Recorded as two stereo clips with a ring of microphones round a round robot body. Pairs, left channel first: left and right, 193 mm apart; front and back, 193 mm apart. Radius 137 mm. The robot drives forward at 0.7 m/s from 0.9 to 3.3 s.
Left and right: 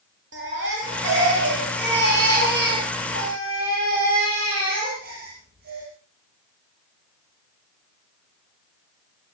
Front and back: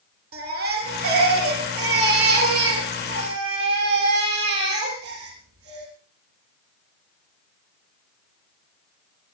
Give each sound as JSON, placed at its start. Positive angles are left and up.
{"t": 0.3, "sound": "a baby crying", "azimuth_deg": -140, "distance_m": 6.5}